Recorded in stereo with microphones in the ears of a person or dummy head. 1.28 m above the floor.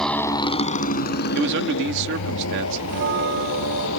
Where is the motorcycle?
Centre (ahead or behind); by 4.0 s 80° left.